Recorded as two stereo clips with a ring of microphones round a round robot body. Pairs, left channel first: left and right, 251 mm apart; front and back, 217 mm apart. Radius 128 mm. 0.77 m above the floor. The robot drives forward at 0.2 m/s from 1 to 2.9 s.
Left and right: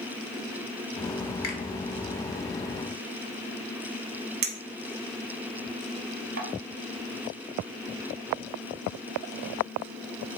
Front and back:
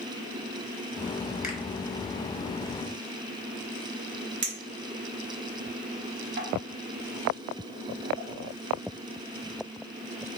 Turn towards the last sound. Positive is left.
turn(degrees=-140)